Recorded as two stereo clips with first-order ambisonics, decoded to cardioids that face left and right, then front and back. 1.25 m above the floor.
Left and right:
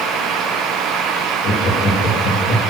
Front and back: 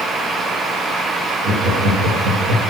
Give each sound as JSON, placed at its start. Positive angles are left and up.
{"t": 1.4, "sound": "laughter", "azimuth_deg": 140, "distance_m": 2.5}